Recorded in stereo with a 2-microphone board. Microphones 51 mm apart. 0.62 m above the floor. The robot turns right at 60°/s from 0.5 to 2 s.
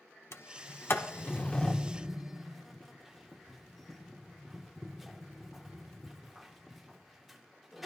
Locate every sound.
0.3 s a sliding door: 65° left (ahead or behind), 1.1 m; by 7.9 s centre (ahead or behind), 1.1 m